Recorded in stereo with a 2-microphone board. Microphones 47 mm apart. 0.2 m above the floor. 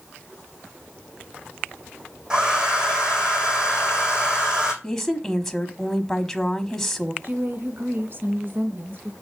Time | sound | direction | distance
2.3 | a hair dryer | 15° right (ahead or behind) | 2.5 m
4.8 | a woman speaking | 10° left (ahead or behind) | 1.1 m
7.2 | a woman speaking | 50° right (ahead or behind) | 2 m